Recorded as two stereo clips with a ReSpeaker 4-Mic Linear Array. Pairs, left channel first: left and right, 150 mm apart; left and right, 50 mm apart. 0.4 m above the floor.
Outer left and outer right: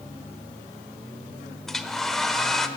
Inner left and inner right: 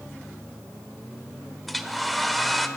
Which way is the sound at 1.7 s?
Centre (ahead or behind).